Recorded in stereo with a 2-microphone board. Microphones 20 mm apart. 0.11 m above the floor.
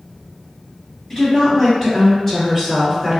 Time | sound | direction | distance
1.1 | a woman speaking | 25° left (ahead or behind) | 1.9 m